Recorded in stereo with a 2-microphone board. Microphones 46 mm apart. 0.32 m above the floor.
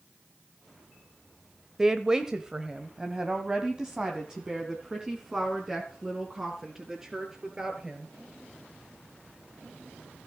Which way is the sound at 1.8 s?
15° right (ahead or behind).